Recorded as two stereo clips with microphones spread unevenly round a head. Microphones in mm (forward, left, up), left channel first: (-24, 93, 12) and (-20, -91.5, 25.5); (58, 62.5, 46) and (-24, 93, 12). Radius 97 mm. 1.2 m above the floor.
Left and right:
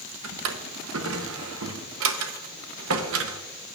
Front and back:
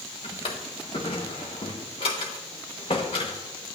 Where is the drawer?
70° right, 0.8 m.